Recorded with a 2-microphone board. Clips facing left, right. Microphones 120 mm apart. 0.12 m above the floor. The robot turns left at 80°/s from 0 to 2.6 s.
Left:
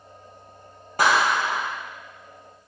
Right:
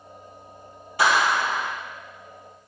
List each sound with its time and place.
1.0 s a clap: 55° left, 3 m; by 1.7 s straight ahead, 3 m